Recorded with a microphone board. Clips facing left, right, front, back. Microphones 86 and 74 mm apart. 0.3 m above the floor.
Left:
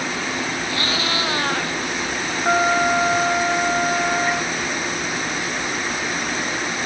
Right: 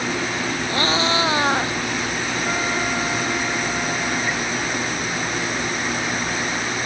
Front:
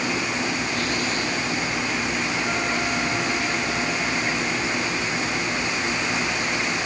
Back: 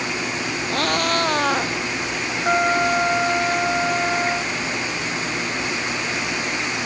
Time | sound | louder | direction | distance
0.7 | a cat meowing | right 7 dB, back 4 dB | 150° right | ?
2.5 | a trumpet | left 9 dB, back 6 dB | 135° left | ?